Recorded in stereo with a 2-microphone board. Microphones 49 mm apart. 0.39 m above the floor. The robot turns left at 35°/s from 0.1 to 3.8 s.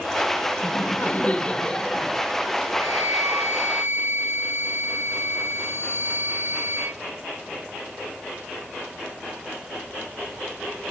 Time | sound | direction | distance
0.6 | laughter | 50° left | 3 m
2.8 | a flute | 80° right | 6 m